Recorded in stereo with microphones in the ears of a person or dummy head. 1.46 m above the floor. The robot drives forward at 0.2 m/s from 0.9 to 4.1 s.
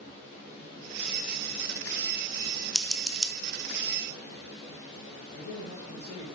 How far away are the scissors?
About 0.8 m.